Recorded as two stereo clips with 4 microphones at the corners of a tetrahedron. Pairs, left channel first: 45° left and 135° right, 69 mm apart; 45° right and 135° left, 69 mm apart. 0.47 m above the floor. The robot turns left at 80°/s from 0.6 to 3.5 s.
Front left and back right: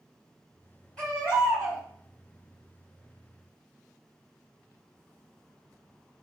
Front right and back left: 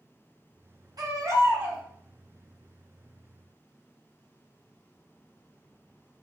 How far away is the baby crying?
About 1.9 m.